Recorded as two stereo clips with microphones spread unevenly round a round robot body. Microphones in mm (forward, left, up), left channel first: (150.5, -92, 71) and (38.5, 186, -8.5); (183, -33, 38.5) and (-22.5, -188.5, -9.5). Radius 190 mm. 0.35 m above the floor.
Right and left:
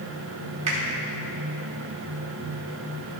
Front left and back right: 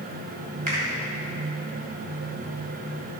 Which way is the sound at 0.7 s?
165° left.